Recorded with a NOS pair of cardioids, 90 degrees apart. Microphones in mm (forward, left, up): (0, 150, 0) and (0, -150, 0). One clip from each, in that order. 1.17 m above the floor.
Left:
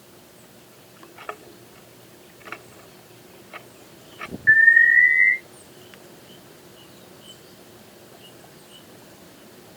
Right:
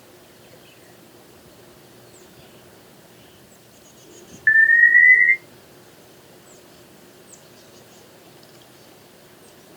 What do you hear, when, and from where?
4.5 s an alarm: 55° right, 2.5 m